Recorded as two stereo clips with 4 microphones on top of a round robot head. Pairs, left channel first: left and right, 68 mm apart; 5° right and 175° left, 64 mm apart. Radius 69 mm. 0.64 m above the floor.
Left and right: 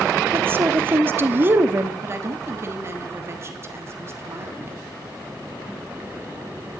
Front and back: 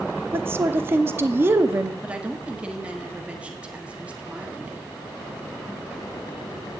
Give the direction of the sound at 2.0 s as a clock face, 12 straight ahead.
4 o'clock.